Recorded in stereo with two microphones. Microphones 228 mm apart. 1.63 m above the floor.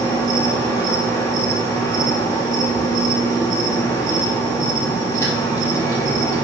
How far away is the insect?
About 2.5 m.